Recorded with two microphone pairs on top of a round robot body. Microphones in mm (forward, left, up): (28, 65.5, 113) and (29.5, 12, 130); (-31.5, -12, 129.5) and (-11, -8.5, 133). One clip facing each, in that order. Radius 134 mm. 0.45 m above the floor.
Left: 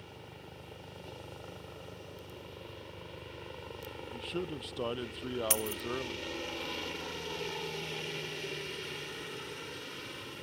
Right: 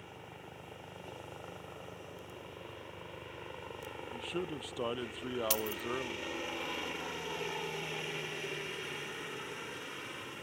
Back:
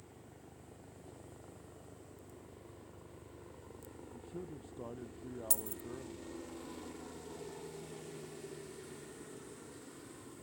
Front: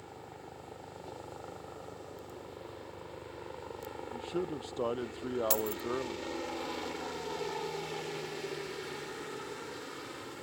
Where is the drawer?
No drawer in this recording.